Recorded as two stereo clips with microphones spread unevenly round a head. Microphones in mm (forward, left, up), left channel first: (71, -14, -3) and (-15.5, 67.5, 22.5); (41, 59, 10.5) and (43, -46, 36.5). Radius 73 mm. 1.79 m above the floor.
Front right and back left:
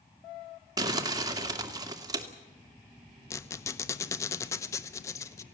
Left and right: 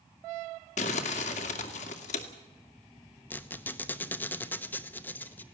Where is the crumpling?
95° left, 2 m.